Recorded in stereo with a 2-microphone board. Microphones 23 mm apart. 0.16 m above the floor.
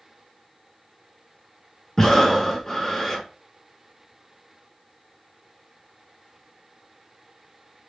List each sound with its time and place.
2.0 s breathing: 20° left (ahead or behind), 0.6 m